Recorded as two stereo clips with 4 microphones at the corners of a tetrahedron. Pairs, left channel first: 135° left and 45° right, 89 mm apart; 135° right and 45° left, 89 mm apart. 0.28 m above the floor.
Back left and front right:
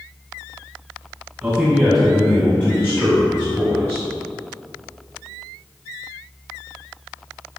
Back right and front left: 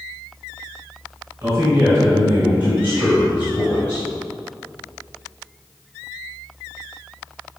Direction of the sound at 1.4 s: 20° left.